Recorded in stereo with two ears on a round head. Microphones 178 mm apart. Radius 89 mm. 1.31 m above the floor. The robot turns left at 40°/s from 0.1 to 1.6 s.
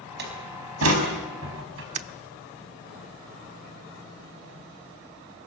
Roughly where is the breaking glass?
Right.